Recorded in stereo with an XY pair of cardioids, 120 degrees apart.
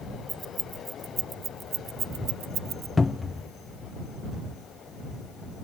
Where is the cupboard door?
20° left.